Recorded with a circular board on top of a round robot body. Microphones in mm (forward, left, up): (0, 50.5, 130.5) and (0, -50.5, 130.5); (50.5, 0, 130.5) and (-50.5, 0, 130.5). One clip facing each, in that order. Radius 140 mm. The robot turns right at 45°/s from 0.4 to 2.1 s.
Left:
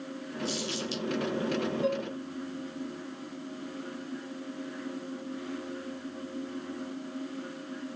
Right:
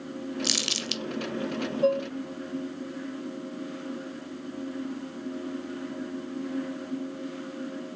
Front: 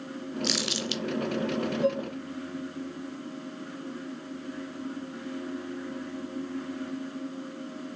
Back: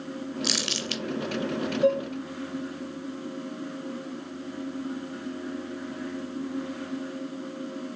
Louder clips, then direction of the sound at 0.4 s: Even, front 1 dB; 95° right.